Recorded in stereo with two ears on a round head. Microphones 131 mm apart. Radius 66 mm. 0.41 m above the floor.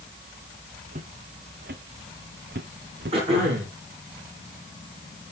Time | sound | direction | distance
0.9 | footsteps | 55° right (ahead or behind) | 2.0 m
3.1 | throat clearing | 40° right (ahead or behind) | 8.5 m